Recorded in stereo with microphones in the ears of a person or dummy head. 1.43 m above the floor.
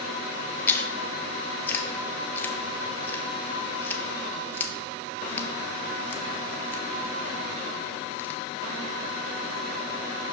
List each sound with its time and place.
0.7 s chewing: 10° left (ahead or behind), 0.7 m